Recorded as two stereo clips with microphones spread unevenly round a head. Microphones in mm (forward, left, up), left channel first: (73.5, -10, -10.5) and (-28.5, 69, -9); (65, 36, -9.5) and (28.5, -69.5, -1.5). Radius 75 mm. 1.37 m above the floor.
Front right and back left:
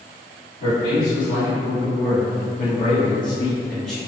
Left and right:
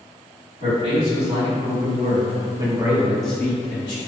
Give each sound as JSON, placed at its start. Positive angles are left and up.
{"t": 0.6, "sound": "a man speaking", "azimuth_deg": -80, "distance_m": 1.5}